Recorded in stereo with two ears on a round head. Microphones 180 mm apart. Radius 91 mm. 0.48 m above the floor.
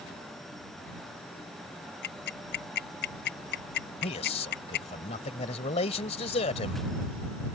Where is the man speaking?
30° left (ahead or behind).